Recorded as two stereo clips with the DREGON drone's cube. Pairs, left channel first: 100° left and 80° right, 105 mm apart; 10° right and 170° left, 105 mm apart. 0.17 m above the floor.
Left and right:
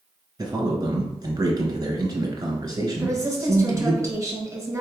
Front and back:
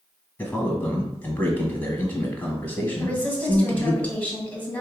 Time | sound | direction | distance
0.4 | a man speaking | 75° right | 1.4 m
3.0 | a woman speaking | 70° right | 1.4 m